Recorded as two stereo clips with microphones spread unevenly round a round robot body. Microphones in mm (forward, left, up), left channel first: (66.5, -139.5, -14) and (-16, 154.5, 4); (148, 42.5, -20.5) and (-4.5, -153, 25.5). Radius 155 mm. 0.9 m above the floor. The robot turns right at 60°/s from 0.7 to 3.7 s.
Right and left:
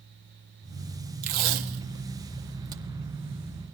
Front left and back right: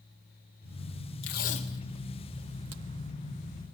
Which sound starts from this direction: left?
Tape being pulled, at 1.2 s.